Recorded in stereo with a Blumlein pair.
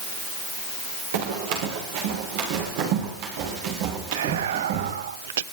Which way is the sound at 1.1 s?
55° right.